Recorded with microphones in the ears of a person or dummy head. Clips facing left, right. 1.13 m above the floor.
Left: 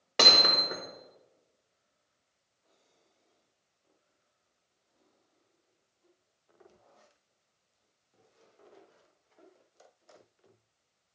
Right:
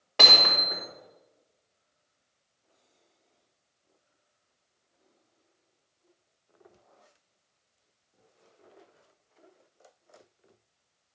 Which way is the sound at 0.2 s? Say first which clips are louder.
Even; 25° left (ahead or behind).